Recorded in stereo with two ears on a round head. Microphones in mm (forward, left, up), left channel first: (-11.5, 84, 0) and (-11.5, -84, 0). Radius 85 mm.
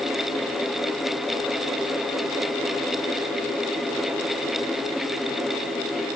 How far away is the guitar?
I don't hear a guitar.